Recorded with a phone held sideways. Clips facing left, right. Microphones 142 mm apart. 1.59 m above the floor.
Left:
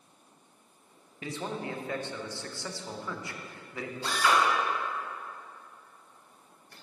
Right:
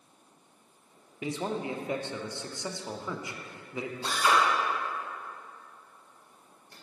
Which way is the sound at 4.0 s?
25° right (ahead or behind).